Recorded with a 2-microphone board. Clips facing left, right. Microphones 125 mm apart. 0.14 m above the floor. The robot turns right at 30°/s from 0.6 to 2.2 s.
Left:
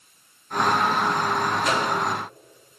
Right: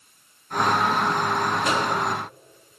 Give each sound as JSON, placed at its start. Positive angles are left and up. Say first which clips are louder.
{"t": 1.6, "sound": "a microwave", "louder": "even", "side_deg": -25, "distance_m": 1.8}